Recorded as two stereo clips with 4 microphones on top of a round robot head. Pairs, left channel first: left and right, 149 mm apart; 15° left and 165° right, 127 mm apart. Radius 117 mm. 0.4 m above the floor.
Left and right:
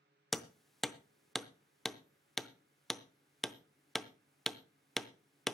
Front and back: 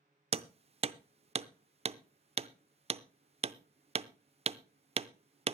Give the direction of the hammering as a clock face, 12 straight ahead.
6 o'clock.